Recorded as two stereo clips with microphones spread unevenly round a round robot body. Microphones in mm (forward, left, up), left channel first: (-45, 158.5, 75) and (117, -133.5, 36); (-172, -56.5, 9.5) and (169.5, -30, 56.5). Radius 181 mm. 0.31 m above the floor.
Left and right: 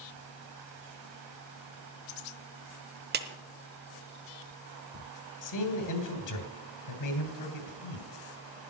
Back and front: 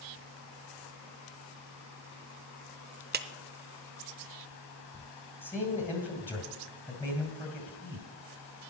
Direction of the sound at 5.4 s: 110° left.